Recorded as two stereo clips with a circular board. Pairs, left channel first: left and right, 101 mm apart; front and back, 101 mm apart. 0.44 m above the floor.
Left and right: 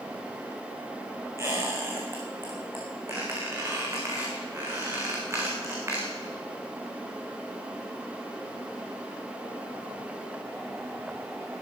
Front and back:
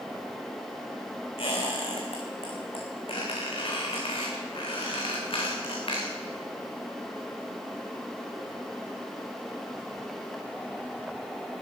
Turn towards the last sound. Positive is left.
turn(degrees=-25)